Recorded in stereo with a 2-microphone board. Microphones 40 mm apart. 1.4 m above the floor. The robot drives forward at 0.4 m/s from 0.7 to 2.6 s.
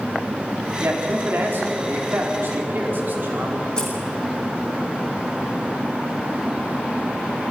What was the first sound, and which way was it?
A man speaking, 60° right (ahead or behind).